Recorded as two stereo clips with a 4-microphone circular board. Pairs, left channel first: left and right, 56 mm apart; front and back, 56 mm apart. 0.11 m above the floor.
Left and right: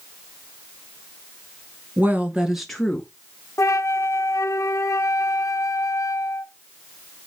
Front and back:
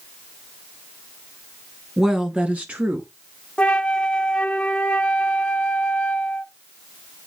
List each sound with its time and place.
2.0 s a woman speaking: 105° right, 1.4 m; by 3.1 s 145° left, 1.5 m
3.6 s a flute: 75° left, 0.7 m